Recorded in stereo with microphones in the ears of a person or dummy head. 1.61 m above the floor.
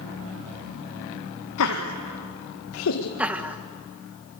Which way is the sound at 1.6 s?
75° left (ahead or behind).